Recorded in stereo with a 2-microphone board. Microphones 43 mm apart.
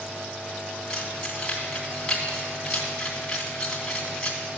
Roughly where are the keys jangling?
Centre.